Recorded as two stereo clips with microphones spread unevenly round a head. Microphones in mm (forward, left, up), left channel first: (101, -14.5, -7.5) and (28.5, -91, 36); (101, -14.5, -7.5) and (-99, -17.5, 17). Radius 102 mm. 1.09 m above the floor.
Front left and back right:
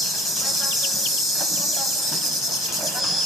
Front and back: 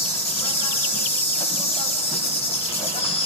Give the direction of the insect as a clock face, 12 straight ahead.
2 o'clock.